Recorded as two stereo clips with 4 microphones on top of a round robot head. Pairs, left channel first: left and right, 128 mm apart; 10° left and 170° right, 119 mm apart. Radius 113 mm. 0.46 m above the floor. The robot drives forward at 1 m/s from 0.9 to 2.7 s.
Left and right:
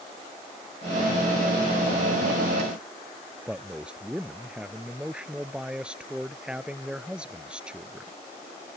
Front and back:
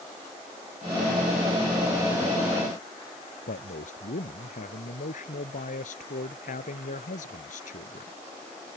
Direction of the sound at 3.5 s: 10° right.